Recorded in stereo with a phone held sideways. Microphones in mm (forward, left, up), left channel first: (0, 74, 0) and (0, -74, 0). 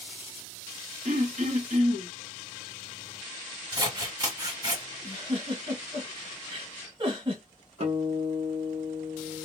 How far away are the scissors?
About 1.6 m.